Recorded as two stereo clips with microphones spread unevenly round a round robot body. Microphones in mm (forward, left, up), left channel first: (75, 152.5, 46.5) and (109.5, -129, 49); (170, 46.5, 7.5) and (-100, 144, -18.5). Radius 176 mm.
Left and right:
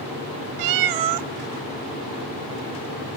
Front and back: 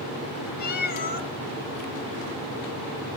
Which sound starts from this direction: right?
A cat meowing, at 0.6 s.